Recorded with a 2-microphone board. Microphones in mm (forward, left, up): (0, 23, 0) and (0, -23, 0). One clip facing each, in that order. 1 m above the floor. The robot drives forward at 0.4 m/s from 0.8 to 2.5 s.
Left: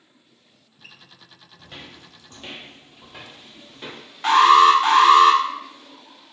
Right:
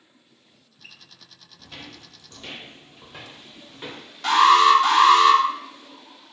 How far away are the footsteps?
About 1.6 m.